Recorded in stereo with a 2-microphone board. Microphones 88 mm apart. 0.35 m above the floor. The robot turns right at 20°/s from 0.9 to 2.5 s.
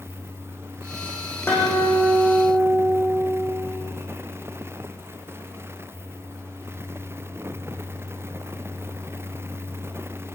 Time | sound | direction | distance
1.5 | a guitar | 25° left (ahead or behind) | 9 m